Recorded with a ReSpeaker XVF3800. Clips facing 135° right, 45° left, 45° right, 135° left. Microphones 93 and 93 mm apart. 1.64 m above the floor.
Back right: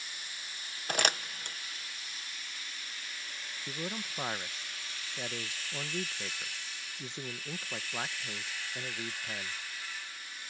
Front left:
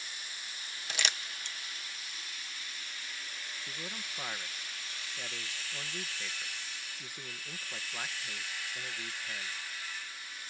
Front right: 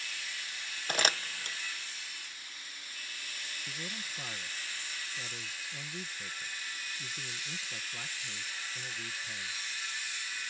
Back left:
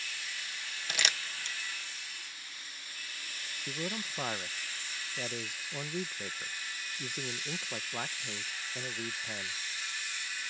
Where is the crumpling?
95° right.